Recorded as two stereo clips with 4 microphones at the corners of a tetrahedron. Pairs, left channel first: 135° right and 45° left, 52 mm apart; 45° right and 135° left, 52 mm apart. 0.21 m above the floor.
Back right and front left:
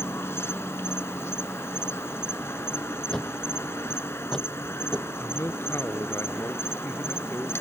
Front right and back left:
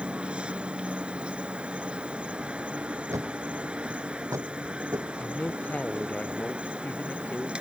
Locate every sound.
0.0 s an insect: 155° right
3.1 s a thud: 145° left
5.2 s a man speaking: 105° right